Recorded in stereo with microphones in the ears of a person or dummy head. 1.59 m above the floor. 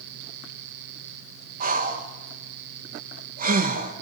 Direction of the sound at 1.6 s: 40° right (ahead or behind).